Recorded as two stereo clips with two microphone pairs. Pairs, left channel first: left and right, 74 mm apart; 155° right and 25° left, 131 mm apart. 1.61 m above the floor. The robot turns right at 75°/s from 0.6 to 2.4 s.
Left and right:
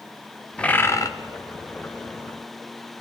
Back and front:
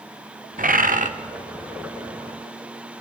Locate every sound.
0.6 s a bird: 15° left, 1.0 m; by 1.1 s 50° left, 1.0 m